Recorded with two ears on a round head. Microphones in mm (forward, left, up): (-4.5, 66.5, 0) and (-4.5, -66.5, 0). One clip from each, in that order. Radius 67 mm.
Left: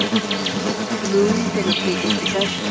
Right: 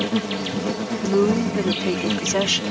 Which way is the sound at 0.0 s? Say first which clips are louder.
Left 4 dB; 25° left (ahead or behind).